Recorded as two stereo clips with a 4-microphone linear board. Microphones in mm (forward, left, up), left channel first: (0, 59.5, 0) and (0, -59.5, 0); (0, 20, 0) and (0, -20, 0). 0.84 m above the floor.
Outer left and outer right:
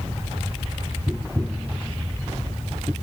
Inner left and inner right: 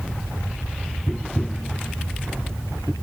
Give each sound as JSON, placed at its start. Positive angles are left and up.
{"t": 1.1, "sound": "tapping", "side_deg": -10}